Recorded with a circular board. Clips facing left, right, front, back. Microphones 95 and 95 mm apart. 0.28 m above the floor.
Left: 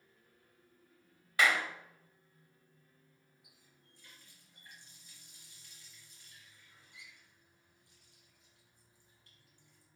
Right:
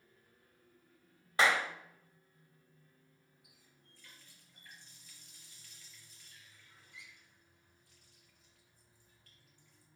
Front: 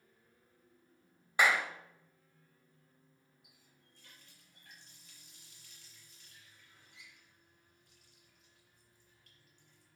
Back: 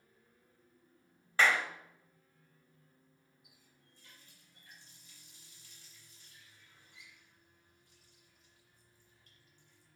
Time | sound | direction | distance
1.4 | a clap | 65° right | 0.8 m
3.4 | a running tap | 20° left | 3.5 m